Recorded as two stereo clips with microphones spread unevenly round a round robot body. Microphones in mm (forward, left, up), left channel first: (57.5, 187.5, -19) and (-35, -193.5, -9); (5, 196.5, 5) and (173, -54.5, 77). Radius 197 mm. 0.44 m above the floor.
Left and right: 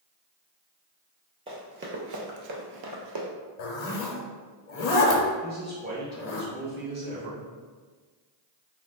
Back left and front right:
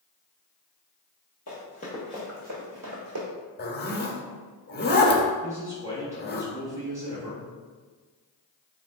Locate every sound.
1.5 s running footsteps: 175° right, 0.7 m; by 3.3 s 65° right, 0.9 m
3.6 s a zipper: 65° left, 0.6 m
5.4 s a man speaking: 150° right, 0.8 m